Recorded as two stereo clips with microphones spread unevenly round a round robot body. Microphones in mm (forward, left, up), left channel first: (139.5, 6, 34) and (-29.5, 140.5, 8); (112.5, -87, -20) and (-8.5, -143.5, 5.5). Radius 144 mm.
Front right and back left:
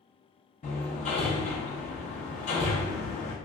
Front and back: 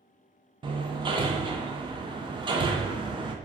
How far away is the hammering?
About 0.5 m.